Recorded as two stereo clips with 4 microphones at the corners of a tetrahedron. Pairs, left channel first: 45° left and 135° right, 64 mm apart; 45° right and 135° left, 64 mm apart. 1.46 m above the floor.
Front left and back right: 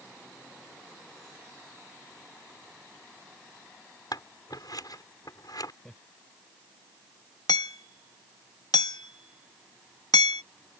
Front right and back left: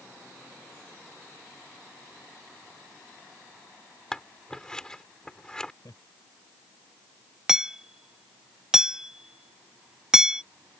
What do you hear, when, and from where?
4.1 s scissors: 35° left
5.8 s laughter: 40° right
7.5 s hammering: 55° left